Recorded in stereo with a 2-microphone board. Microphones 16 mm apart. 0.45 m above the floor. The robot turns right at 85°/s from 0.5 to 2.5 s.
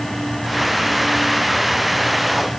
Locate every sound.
Only background noise.